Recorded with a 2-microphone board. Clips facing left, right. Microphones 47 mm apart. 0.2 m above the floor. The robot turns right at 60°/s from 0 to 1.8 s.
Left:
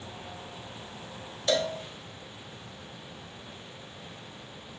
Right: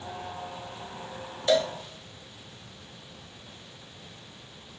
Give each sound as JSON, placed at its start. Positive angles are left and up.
{"t": 1.5, "sound": "a cowbell", "side_deg": -10, "distance_m": 0.9}